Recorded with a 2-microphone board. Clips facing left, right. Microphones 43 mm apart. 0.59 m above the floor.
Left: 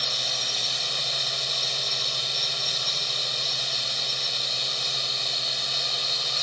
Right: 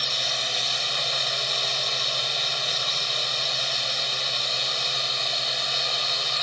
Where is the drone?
20° right (ahead or behind).